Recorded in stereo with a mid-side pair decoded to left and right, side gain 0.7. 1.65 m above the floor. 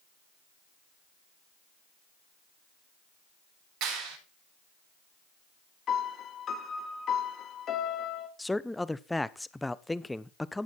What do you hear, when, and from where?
3.8 s a clap: 55° right, 8 m
5.9 s a piano: 40° left, 2 m
8.4 s a man speaking: 5° left, 0.9 m